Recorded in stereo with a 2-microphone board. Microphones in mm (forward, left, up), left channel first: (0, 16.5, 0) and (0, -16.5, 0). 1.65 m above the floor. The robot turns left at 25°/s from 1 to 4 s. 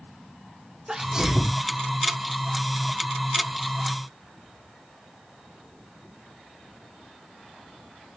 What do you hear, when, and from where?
0.9 s a sneeze: 20° right (ahead or behind), 0.6 m; by 1.6 s 5° right (ahead or behind), 0.6 m